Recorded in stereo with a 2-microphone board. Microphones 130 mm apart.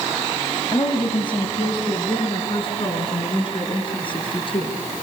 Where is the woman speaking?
35° left (ahead or behind), 1.6 m; by 4.8 s 40° left (ahead or behind), 5 m.